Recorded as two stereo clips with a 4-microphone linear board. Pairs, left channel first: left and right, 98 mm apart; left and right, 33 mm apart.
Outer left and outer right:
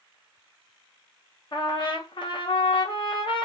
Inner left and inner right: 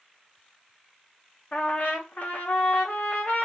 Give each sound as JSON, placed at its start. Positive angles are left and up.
{"t": 1.5, "sound": "a trumpet", "side_deg": 55, "distance_m": 0.8}